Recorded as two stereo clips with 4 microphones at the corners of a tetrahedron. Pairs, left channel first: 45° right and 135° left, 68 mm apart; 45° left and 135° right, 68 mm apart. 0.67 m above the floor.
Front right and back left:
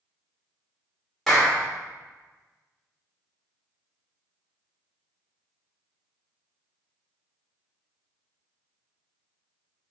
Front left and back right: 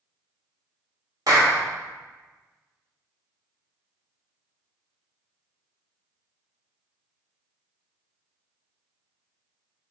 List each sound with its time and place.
1.3 s a clap: 135° right, 1.7 m